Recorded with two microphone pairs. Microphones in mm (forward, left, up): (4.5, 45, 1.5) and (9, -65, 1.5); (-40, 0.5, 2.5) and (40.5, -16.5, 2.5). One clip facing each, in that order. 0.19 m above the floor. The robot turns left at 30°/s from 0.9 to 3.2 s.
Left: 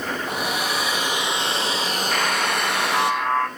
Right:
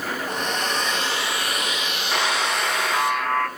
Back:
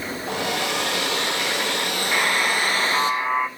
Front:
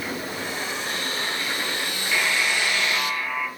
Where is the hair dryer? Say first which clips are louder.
Even, back 5 dB; 175° left, 1.5 m; by 3.1 s 110° left, 1.5 m.